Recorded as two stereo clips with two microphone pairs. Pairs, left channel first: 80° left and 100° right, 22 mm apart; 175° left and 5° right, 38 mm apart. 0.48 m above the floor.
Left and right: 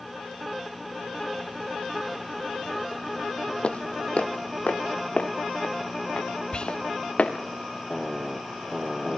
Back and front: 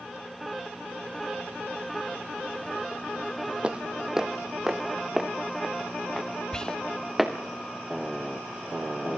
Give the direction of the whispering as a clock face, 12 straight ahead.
8 o'clock.